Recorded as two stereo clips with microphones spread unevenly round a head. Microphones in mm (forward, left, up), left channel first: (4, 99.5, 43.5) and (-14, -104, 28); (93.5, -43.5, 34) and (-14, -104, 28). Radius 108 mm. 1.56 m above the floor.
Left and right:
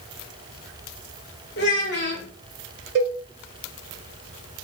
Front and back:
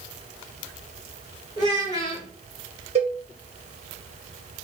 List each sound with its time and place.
1.6 s a child speaking: 85° left, 0.9 m
3.0 s a cowbell: 130° right, 0.6 m